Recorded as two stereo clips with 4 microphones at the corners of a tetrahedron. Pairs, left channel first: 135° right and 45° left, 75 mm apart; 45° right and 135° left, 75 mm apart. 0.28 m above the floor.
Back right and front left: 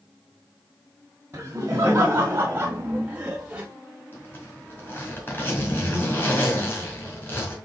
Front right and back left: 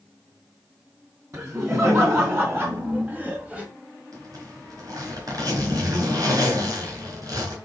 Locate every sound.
1.3 s laughter: 95° left, 2.5 m
4.1 s a zipper: 165° left, 4 m